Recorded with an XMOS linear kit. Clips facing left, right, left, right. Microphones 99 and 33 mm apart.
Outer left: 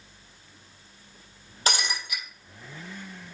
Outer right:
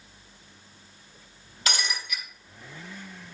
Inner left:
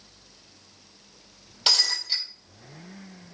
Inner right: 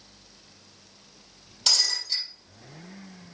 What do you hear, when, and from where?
1.7 s breaking glass: 30° left (ahead or behind), 4 m